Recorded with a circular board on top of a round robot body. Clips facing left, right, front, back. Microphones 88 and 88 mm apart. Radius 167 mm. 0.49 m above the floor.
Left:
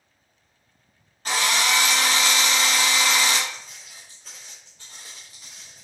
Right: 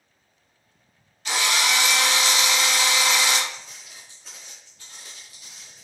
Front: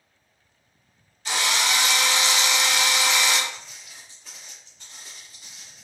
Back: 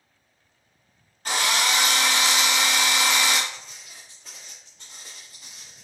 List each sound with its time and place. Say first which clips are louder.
1.2 s a drill: left 1 dB, back 1 dB; 140° left, 0.8 m
3.5 s footsteps: left 1 dB, front 1 dB; 100° right, 0.6 m; by 5.8 s 140° left, 1.3 m